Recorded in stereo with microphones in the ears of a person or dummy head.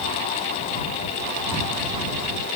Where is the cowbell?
No cowbell in this recording.